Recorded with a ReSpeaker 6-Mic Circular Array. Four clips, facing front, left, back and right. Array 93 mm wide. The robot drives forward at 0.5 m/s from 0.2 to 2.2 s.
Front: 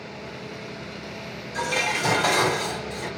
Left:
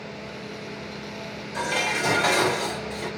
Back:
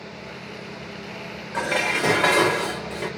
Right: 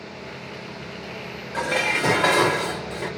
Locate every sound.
1.5 s dishes clattering: 145° right, 1.7 m; by 3.1 s 150° right, 1.9 m